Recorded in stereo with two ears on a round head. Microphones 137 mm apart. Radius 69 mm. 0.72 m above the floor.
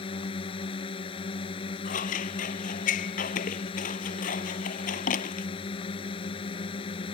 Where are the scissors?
60° left (ahead or behind).